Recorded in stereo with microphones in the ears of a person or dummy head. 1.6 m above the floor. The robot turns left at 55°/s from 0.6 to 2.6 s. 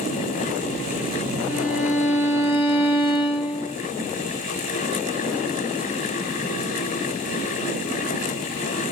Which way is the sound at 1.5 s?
130° left.